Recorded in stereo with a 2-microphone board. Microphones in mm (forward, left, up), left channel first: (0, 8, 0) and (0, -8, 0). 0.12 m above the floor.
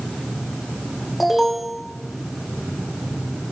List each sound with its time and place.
1.2 s an alarm: 5° right (ahead or behind), 8.5 m